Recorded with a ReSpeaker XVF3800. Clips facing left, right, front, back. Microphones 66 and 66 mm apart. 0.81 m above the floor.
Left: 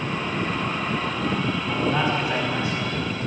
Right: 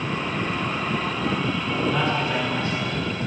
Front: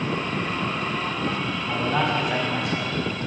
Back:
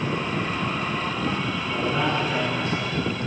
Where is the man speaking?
20° left, 4.5 m.